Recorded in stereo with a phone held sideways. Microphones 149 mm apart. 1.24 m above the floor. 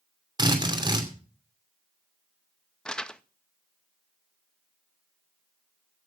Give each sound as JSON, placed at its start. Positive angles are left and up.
{"t": 0.4, "sound": "a drill", "side_deg": -30, "distance_m": 2.5}
{"t": 2.9, "sound": "crumpling", "side_deg": 5, "distance_m": 0.6}